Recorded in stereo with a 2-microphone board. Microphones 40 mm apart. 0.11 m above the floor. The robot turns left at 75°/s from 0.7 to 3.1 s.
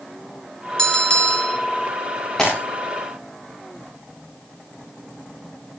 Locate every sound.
0.8 s a bell: 140° left, 1.9 m; by 1.6 s 80° left, 1.9 m
2.4 s breaking glass: 15° left (ahead or behind), 7.5 m; by 2.6 s centre (ahead or behind), 7.5 m